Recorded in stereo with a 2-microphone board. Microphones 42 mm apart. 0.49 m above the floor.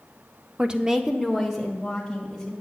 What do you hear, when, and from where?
0.6 s a woman speaking: 20° right (ahead or behind), 0.7 m; by 2.5 s 5° left (ahead or behind), 2.5 m